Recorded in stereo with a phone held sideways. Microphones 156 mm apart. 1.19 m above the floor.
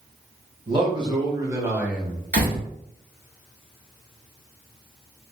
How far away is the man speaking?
About 1.7 m.